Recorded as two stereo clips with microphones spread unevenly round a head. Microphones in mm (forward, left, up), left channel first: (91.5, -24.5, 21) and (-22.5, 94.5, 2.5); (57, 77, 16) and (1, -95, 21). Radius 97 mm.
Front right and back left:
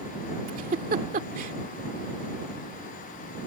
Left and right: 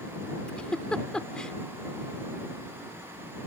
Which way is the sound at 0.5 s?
155° left.